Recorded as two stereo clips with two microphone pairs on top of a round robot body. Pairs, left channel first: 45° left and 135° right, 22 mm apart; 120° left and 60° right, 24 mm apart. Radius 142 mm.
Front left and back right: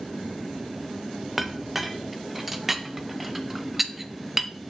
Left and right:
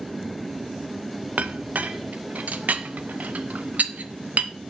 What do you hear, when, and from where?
1.4 s a clink: 45° right, 0.6 m